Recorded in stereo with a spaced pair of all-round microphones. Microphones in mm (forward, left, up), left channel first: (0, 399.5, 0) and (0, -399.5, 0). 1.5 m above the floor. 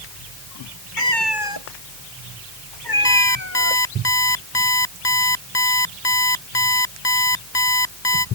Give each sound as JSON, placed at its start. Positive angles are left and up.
{"t": 1.0, "sound": "a cat meowing", "side_deg": 80}
{"t": 3.0, "sound": "an alarm clock", "side_deg": 30}